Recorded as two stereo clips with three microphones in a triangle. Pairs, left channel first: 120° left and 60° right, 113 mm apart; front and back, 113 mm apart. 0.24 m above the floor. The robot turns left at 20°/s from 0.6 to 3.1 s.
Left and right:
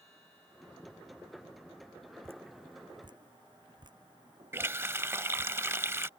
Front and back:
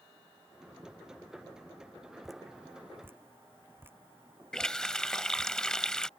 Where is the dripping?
90° right; by 5.5 s 110° right.